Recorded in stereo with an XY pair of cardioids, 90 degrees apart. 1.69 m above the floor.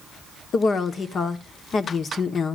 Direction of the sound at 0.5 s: 60° left.